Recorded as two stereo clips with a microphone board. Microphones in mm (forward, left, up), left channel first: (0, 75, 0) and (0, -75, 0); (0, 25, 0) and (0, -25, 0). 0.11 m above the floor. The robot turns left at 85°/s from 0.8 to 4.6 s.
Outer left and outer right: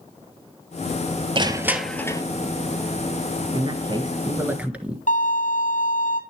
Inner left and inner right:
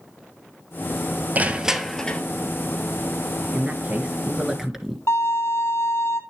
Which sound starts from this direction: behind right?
Crushing, at 1.4 s.